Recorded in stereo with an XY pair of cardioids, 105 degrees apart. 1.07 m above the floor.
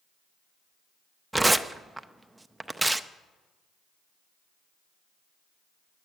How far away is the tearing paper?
About 0.6 m.